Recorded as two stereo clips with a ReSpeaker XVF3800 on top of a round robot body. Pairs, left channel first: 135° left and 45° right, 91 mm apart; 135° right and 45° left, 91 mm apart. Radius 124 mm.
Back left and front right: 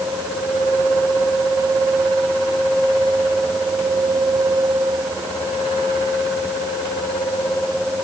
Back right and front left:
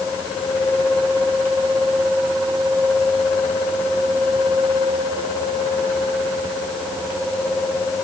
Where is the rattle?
No rattle in this recording.